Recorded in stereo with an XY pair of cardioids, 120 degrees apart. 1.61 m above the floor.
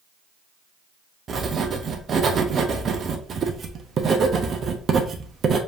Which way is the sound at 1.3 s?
40° right.